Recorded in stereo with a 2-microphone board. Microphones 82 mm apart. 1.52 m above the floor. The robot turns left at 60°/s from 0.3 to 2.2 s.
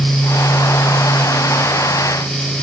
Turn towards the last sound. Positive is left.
No sound to turn to.